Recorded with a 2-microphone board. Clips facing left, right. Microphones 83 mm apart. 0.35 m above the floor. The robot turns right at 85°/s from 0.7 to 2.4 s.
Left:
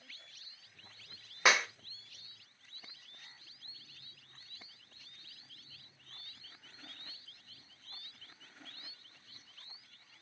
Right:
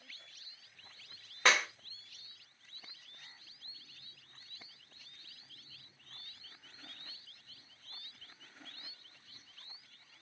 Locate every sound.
1.4 s a clap: 10° left (ahead or behind), 0.7 m; by 1.7 s centre (ahead or behind), 0.7 m